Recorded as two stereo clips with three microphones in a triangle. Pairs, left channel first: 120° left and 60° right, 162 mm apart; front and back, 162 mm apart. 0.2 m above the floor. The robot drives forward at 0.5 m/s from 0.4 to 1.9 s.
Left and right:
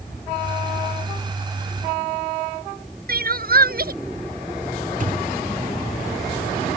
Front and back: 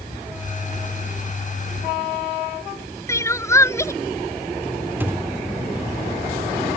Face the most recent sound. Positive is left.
turn(degrees=-100)